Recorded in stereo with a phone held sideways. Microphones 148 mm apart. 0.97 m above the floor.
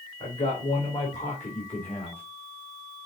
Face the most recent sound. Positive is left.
turn(degrees=45)  # may be behind; listen again after turning